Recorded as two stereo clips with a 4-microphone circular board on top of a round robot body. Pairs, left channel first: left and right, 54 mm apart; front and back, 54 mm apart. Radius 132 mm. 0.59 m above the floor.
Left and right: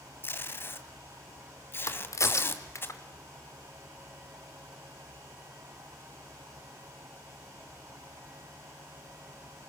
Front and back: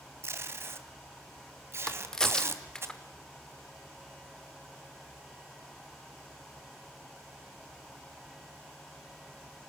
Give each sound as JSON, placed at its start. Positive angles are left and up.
{"t": 0.2, "sound": "tape being pulled", "azimuth_deg": 140, "distance_m": 2.5}
{"t": 1.9, "sound": "a crack", "azimuth_deg": 80, "distance_m": 2.5}